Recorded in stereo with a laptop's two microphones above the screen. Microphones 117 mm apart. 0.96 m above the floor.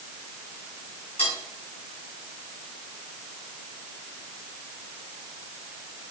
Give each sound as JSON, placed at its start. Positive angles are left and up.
{"t": 1.2, "sound": "cutlery clinking", "side_deg": 55, "distance_m": 5.0}